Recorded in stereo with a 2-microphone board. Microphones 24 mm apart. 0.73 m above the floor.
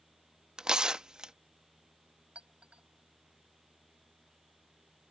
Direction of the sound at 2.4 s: 70° right (ahead or behind).